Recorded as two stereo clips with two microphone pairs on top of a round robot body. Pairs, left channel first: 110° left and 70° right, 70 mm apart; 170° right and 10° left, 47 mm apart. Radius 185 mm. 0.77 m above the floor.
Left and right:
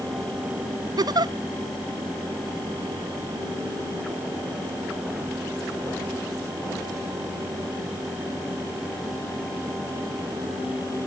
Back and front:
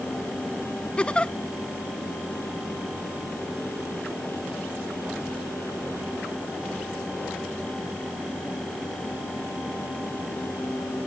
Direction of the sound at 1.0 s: 100° right.